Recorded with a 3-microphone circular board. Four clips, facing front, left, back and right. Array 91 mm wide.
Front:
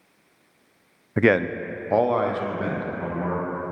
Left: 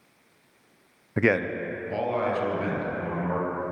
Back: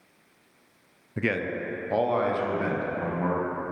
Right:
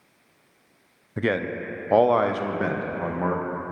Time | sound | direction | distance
1.2 | a man speaking | 15° left | 0.6 m